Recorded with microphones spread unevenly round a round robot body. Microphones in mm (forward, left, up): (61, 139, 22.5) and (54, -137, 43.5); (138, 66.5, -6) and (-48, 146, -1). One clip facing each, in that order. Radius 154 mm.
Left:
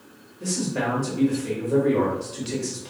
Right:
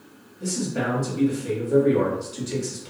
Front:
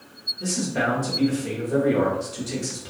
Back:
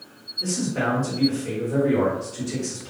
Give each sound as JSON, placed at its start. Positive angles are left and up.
{"t": 0.4, "sound": "a man speaking", "azimuth_deg": -5, "distance_m": 1.3}